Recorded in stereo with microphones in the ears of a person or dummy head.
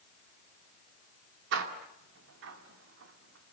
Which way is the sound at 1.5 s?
70° right (ahead or behind).